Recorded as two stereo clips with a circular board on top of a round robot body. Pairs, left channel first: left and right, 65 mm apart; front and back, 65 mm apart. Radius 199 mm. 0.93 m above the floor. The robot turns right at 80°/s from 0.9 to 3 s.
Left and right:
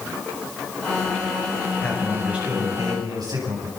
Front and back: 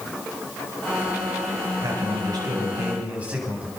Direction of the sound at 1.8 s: 155° left.